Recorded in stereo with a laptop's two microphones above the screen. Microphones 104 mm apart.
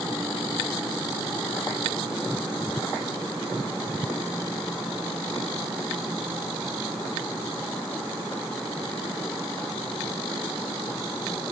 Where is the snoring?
No snoring in this recording.